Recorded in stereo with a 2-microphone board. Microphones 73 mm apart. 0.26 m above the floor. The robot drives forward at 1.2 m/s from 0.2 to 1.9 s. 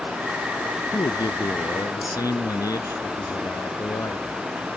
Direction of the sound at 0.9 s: 70° left (ahead or behind).